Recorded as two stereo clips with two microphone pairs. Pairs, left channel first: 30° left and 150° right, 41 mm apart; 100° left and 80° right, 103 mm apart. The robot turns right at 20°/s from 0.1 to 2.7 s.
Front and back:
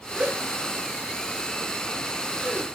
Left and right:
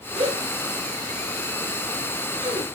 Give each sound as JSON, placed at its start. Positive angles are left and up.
{"t": 0.1, "sound": "a gasp", "azimuth_deg": -95, "distance_m": 8.0}